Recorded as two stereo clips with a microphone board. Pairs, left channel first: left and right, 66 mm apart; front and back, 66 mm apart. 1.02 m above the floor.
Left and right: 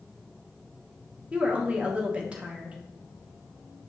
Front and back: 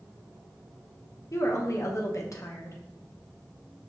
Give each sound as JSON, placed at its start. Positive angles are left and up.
{"t": 1.3, "sound": "a woman speaking", "azimuth_deg": -25, "distance_m": 0.8}